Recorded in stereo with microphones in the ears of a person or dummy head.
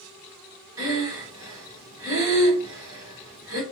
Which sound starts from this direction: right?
Breathing, at 0.8 s.